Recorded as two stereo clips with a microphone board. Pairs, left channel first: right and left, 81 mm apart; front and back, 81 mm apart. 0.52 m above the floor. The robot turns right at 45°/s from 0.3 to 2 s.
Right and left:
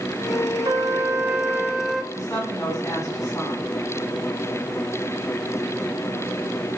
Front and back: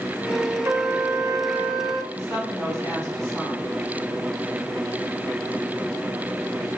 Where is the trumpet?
125° left, 0.6 m; by 2.0 s 175° right, 0.6 m.